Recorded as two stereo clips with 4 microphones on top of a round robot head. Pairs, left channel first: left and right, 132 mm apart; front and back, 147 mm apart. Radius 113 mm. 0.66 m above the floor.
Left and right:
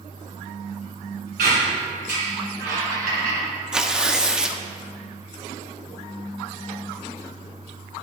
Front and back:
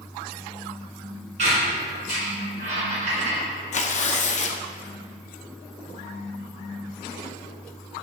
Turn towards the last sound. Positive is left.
turn(degrees=-10)